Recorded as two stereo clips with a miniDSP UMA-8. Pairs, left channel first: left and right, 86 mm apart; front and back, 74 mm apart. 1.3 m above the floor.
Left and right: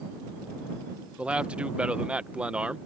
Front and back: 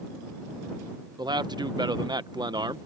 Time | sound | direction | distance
1.2 | a man speaking | 165° right | ?